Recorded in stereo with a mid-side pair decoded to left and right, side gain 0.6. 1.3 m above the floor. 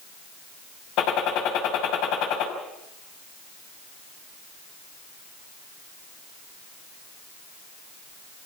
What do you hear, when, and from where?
1.0 s a gunshot: 70° left, 6 m